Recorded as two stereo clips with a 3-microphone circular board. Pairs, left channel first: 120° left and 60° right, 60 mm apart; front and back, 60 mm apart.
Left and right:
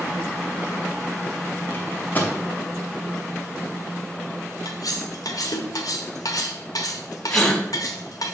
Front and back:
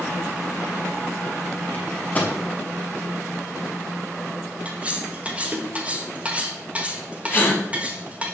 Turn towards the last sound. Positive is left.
turn(degrees=50)